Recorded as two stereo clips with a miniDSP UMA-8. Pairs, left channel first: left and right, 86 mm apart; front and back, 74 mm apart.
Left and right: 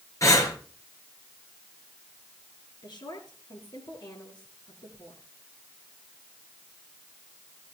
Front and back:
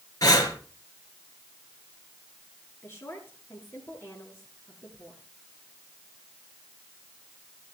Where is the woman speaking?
60° left, 6.5 m.